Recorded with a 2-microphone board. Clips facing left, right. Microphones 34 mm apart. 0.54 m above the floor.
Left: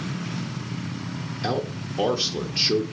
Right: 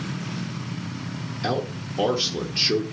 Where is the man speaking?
Centre (ahead or behind), 1.2 m.